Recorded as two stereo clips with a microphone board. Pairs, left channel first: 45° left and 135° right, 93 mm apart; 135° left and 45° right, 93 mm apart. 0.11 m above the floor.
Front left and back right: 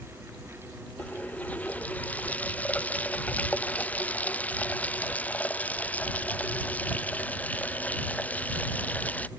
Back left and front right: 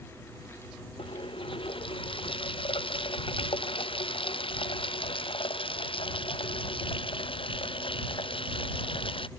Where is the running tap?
120° left.